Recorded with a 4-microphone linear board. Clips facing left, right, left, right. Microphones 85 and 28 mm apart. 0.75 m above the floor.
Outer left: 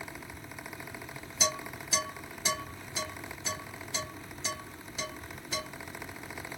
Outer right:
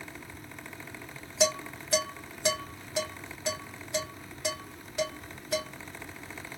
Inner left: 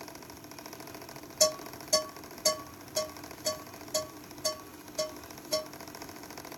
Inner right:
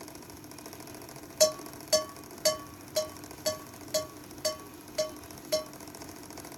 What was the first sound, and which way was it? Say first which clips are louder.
Dishes clattering: outer right 6 dB, inner right 2 dB; 70° right (ahead or behind).